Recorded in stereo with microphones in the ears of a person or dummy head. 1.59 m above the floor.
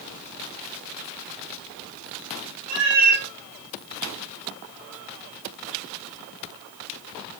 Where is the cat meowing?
30° right (ahead or behind), 2.5 m.